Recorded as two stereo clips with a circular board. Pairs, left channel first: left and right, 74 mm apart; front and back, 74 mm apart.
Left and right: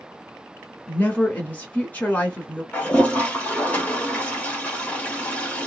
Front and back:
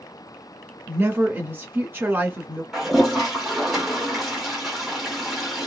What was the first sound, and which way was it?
A woman speaking, 140° left.